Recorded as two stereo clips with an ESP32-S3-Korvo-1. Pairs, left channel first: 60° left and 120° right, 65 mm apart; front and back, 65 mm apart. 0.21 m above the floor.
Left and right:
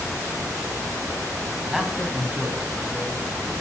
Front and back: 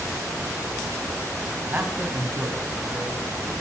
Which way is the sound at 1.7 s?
155° left.